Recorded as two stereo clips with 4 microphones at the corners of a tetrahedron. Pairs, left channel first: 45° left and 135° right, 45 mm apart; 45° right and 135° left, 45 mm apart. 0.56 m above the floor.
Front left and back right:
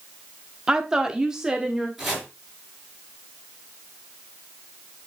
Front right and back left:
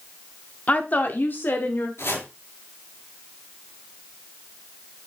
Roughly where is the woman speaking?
Right.